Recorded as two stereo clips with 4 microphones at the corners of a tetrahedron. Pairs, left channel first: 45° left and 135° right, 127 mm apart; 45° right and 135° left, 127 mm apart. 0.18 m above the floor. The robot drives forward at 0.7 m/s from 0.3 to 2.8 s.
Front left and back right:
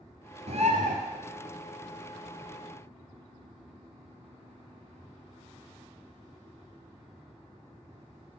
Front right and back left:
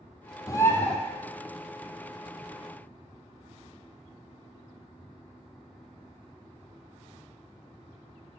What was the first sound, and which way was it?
A bird, 105° right.